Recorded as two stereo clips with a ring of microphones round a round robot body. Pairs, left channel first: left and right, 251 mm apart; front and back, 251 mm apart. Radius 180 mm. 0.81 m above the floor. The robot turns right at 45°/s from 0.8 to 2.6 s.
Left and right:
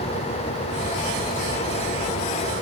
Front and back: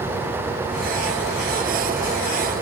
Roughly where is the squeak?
I don't hear a squeak.